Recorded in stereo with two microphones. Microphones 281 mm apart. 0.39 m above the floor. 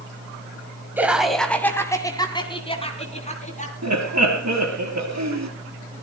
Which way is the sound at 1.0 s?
5° right (ahead or behind).